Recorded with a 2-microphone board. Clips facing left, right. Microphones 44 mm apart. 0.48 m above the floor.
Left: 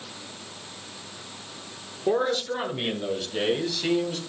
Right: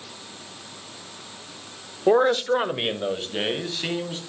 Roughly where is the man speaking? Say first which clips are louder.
Right 6 dB; right.